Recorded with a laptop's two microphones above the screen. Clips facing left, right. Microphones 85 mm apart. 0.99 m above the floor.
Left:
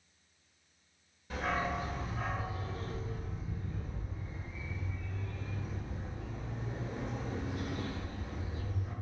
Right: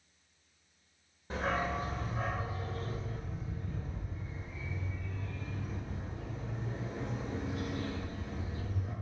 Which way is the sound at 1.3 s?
35° right (ahead or behind).